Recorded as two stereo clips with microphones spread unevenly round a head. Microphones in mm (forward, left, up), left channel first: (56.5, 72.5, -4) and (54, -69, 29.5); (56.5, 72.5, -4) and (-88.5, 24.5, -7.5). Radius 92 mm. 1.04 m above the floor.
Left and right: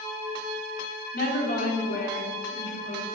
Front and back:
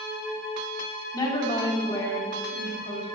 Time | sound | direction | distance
1.1 | a woman speaking | 85° left | 3.5 m